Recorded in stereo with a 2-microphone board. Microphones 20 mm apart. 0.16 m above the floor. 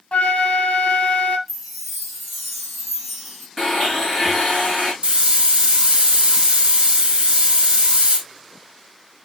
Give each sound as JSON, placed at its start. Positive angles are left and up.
{"t": 0.1, "sound": "a flute", "side_deg": 70, "distance_m": 1.4}
{"t": 1.5, "sound": "a chime", "side_deg": -5, "distance_m": 2.5}
{"t": 3.6, "sound": "a blender", "side_deg": 10, "distance_m": 6.0}
{"t": 5.0, "sound": "a hiss", "side_deg": -40, "distance_m": 4.0}